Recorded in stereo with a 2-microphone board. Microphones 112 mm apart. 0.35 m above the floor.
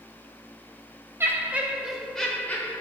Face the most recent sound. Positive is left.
turn(degrees=20)  # may be behind; listen again after turning